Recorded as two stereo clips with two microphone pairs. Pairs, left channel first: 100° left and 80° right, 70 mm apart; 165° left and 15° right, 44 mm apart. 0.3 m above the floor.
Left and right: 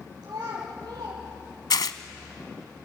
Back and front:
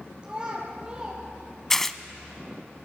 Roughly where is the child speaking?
Right.